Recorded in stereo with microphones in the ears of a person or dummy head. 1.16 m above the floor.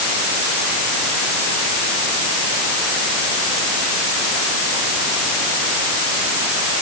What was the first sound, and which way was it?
Only background noise.